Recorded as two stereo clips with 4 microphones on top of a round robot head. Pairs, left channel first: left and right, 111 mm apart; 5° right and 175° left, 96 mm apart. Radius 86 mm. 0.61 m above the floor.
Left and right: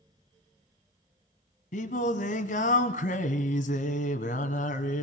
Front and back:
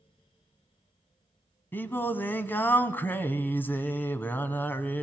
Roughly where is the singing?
Ahead left.